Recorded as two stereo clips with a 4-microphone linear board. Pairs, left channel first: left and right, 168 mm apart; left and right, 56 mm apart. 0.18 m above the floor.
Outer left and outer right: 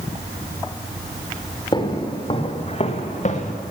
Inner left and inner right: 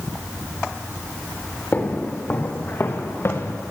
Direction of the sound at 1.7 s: 25° left (ahead or behind).